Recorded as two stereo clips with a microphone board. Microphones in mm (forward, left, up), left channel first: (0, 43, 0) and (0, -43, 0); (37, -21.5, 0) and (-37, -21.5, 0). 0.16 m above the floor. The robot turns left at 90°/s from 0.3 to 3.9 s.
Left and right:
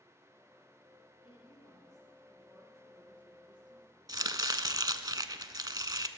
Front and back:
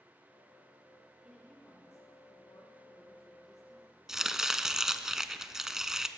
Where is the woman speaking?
110° left, 3.5 m; by 4.8 s 130° right, 3.5 m.